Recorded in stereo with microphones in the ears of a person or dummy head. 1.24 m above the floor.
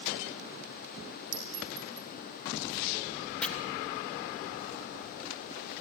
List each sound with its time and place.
1.3 s a clink: 60° right (ahead or behind), 2.5 m
3.4 s chopping: 5° left (ahead or behind), 0.8 m